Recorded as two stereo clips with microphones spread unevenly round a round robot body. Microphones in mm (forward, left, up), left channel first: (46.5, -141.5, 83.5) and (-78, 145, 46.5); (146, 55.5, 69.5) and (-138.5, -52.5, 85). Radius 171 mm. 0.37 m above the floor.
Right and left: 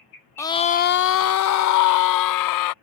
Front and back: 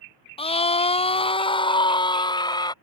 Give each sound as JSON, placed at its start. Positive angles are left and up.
{"t": 0.4, "sound": "a scream", "azimuth_deg": 25}